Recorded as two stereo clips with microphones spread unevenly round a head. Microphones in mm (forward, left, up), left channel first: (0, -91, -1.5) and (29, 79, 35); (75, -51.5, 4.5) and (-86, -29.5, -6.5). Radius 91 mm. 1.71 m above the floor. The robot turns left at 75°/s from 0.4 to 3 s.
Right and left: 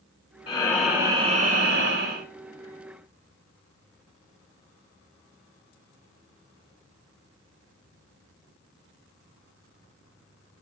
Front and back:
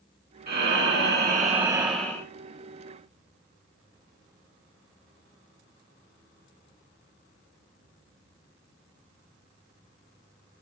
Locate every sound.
0.5 s breathing: 165° right, 1.2 m; by 2.3 s 60° left, 1.2 m